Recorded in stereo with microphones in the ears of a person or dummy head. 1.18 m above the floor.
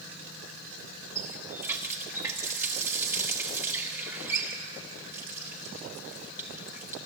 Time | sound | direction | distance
1.1 | a running tap | 10° right (ahead or behind) | 1.4 m